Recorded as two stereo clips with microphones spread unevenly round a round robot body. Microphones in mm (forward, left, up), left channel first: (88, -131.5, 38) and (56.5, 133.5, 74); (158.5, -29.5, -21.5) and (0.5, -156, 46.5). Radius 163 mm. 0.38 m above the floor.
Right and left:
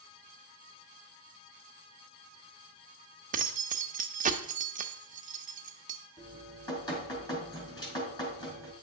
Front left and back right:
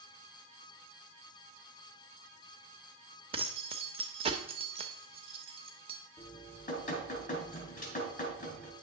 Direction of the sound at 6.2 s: 10° right.